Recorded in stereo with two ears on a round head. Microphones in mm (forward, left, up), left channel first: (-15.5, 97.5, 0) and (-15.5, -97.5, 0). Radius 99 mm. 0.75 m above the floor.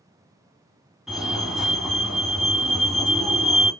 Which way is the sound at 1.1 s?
Centre (ahead or behind).